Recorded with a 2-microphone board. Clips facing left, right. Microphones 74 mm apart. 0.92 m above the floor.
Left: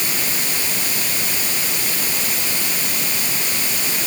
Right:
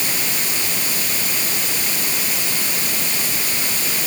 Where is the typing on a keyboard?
No typing on a keyboard in this recording.